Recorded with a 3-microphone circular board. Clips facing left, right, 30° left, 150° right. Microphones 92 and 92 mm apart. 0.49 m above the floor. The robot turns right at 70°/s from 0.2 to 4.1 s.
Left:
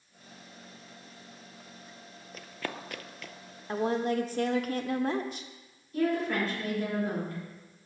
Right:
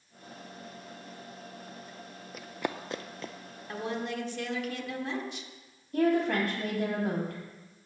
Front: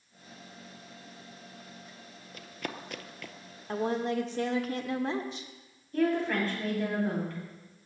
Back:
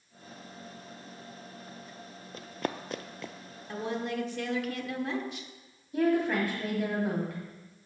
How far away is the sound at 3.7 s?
About 0.8 m.